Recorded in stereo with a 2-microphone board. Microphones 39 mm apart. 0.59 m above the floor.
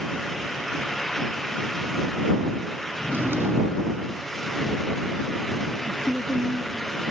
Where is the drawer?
90° right.